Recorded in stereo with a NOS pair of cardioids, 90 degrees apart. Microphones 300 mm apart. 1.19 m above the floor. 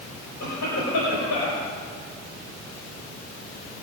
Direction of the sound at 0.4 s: 65° left.